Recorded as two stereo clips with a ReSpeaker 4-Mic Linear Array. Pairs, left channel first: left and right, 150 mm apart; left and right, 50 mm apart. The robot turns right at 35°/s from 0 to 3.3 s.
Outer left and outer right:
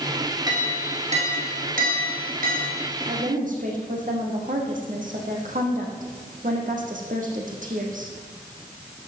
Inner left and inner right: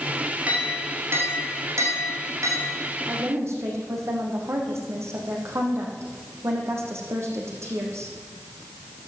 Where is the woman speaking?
70° right (ahead or behind), 4 m; by 8.1 s 65° right (ahead or behind), 4 m.